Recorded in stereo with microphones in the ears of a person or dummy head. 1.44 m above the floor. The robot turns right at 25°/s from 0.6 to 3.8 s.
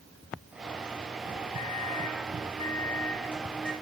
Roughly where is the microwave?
Behind left.